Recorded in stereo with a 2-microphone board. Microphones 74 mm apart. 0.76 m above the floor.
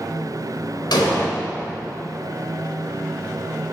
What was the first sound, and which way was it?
An explosion, 80° left.